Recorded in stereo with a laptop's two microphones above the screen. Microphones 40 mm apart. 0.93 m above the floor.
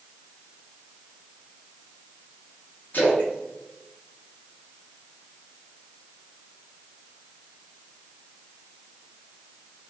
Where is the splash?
55° left (ahead or behind), 1.2 m.